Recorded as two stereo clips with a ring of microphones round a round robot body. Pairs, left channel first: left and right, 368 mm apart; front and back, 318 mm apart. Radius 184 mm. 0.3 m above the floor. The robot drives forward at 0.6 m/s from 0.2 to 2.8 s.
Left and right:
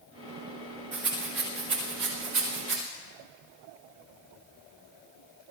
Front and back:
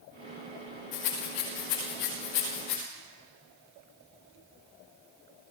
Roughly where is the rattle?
Ahead right.